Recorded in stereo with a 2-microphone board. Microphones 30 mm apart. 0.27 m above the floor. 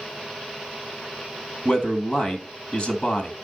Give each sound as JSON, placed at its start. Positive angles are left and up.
{"t": 1.6, "sound": "a man speaking", "side_deg": 35, "distance_m": 1.8}